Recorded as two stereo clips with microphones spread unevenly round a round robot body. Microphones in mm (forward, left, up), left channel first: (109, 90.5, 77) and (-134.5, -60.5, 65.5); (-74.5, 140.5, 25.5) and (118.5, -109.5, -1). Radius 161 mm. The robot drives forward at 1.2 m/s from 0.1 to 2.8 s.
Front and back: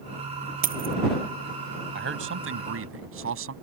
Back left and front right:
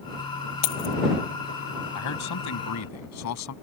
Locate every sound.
0.6 s keys jangling: 150° left
1.9 s a man speaking: 165° left; by 3.5 s 170° left